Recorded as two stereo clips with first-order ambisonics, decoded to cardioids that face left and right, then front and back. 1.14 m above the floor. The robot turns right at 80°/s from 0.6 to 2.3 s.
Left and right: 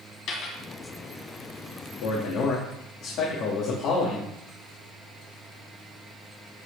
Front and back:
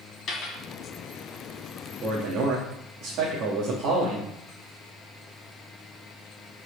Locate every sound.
0.3 s a dropped coin: 55° left, 2.5 m
2.0 s a man speaking: 110° left, 1.8 m; by 4.3 s 135° left, 1.8 m